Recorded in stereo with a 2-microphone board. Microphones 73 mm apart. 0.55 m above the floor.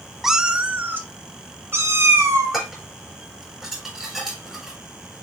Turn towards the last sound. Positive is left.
turn(degrees=-5)  # may be behind; listen again after turning